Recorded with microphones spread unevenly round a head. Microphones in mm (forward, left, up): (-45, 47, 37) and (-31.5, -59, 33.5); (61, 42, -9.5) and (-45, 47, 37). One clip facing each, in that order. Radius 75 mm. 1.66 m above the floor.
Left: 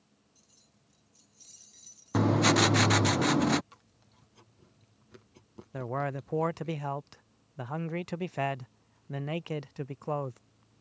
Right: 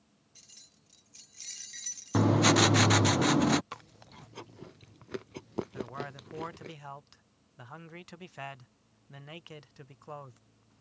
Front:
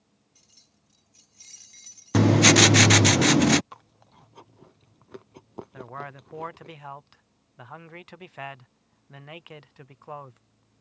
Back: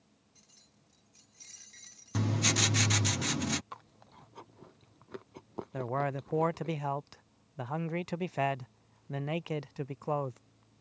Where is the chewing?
100° right.